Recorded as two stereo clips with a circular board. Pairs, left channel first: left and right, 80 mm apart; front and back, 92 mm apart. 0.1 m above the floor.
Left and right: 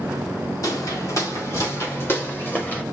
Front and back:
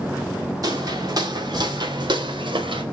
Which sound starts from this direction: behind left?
Footsteps, at 0.6 s.